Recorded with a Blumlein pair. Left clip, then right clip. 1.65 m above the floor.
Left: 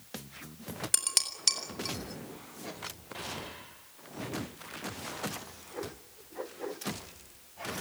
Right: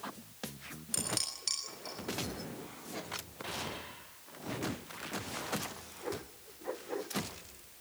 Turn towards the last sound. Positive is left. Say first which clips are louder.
# left 5 dB
turn(degrees=60)